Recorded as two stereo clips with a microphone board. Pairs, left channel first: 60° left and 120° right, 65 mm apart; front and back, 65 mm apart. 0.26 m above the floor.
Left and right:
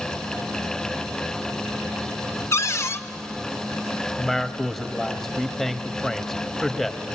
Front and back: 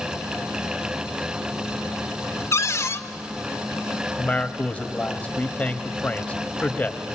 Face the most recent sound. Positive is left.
turn(degrees=-15)